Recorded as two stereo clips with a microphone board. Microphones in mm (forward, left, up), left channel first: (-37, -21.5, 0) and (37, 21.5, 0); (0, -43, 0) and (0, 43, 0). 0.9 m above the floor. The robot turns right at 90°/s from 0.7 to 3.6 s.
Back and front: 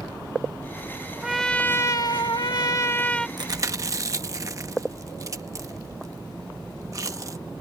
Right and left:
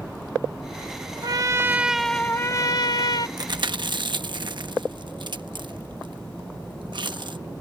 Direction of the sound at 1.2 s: 110° left.